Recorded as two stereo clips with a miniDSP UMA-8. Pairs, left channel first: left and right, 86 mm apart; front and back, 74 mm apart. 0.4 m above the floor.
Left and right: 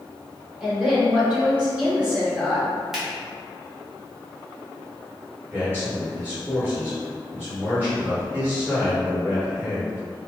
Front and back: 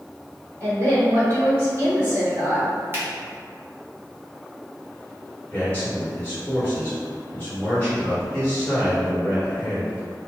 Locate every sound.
0.6 s a woman speaking: 155° right, 1.5 m
2.9 s a finger snap: 170° right, 0.9 m
5.5 s a man speaking: 55° right, 1.4 m